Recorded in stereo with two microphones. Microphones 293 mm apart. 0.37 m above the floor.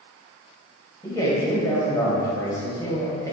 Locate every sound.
1.0 s a man speaking: 10° left (ahead or behind), 1.9 m